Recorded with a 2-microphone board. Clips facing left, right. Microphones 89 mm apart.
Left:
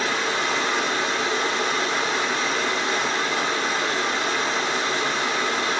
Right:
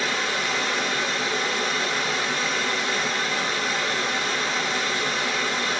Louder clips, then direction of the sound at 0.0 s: Left 2 dB; 35° left (ahead or behind).